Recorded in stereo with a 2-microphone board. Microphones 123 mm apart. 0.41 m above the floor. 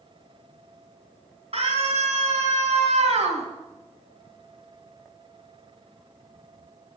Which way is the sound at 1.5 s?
60° right (ahead or behind).